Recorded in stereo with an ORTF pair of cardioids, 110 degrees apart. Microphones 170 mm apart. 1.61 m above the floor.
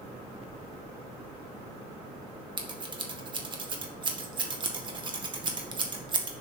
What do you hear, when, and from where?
2.6 s scissors: 30° right, 1.8 m